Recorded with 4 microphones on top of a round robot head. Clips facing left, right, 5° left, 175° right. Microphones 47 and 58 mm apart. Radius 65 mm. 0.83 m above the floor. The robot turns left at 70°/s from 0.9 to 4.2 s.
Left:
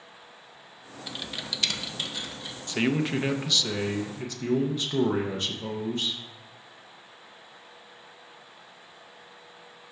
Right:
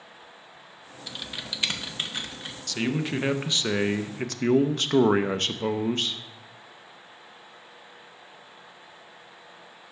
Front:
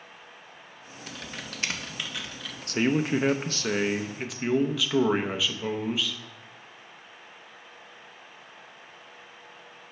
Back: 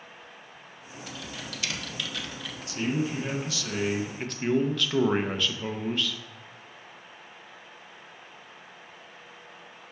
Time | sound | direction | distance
1.1 | typing on a keyboard | 10° left | 0.9 m
2.7 | a man speaking | 30° left | 0.6 m